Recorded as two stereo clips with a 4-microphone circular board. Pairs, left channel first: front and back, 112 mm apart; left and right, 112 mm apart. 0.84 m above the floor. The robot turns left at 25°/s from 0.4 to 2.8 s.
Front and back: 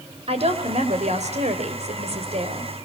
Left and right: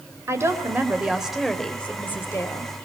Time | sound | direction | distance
0.3 | a woman speaking | 155° right | 4 m